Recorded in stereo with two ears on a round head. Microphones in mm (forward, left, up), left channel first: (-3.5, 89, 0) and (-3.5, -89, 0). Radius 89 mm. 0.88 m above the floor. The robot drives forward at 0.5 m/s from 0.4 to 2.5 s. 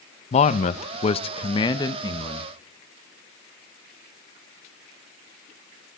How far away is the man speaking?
About 0.5 m.